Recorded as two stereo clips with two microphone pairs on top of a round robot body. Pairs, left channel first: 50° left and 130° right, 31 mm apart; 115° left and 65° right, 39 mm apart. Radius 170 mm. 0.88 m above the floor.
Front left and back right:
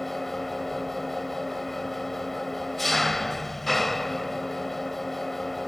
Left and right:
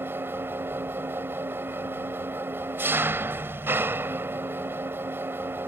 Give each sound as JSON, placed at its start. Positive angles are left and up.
{"t": 0.0, "sound": "an engine running", "azimuth_deg": -35}